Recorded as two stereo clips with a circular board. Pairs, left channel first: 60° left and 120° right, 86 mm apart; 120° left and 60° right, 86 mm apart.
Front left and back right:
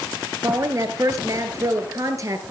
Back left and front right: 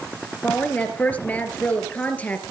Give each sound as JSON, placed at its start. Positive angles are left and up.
{"t": 0.4, "sound": "a woman speaking", "azimuth_deg": -170, "distance_m": 3.5}